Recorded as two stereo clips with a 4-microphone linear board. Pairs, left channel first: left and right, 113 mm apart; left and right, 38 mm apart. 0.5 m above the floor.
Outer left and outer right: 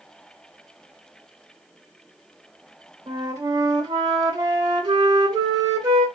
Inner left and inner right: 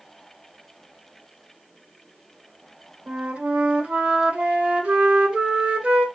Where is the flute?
35° right (ahead or behind), 1.3 m.